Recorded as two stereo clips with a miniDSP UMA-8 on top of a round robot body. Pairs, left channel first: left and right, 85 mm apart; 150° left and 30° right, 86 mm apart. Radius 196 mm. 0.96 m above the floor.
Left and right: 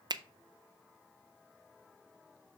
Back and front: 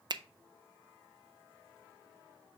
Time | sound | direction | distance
0.1 | a finger snap | 60° right | 0.5 m